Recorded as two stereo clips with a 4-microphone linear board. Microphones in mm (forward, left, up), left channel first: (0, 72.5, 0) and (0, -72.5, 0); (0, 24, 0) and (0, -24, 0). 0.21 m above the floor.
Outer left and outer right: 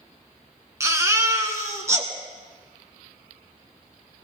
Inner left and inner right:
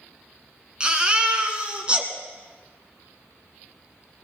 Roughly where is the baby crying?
Right.